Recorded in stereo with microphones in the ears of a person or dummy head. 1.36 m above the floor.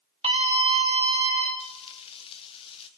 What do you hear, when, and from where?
0.2 s a scream: 30° right (ahead or behind), 1.6 m
1.6 s frying: 30° left (ahead or behind), 1.2 m